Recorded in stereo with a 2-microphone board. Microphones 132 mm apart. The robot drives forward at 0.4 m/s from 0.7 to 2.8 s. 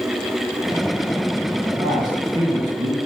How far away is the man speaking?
About 1.7 m.